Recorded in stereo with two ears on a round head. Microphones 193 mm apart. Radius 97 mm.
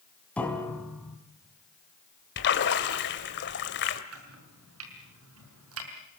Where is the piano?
5° left (ahead or behind), 3.5 m.